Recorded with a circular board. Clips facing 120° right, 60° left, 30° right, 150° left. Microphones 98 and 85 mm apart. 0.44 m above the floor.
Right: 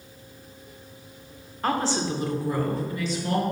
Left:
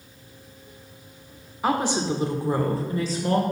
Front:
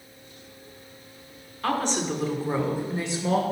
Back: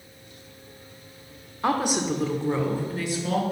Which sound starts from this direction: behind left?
A woman speaking, at 1.6 s.